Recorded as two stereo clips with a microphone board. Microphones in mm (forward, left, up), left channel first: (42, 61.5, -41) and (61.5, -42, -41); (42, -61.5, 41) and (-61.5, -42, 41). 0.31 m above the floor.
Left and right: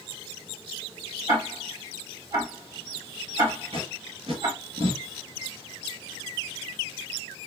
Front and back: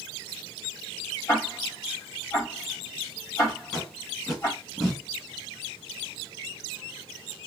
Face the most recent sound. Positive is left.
turn(degrees=-100)